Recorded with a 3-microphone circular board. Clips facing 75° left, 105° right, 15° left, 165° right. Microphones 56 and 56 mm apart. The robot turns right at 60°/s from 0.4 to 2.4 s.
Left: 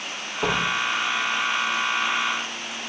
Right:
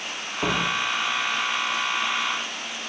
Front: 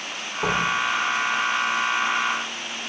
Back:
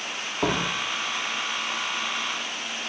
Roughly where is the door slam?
Behind.